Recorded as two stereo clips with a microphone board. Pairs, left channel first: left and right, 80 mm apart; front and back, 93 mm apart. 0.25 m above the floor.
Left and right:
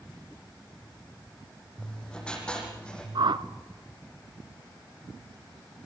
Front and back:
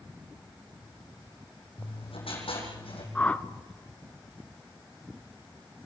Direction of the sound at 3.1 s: 75° right.